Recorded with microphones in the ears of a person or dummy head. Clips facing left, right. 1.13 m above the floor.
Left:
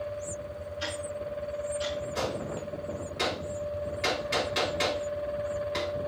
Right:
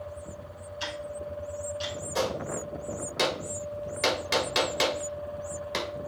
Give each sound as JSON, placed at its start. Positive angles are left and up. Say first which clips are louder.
{"t": 0.8, "sound": "ticking", "louder": "even", "side_deg": -55, "distance_m": 3.5}
{"t": 2.1, "sound": "a gunshot", "louder": "right 2 dB", "side_deg": -65, "distance_m": 1.7}